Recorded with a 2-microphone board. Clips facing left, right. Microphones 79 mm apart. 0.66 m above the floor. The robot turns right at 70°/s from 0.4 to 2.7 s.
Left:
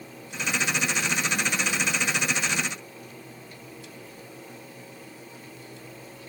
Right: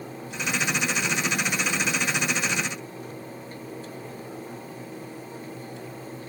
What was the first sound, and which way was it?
Only background noise.